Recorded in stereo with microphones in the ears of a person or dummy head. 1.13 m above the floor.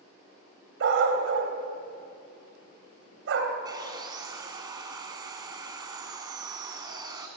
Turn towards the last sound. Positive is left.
turn(degrees=-25)  # may be behind; listen again after turning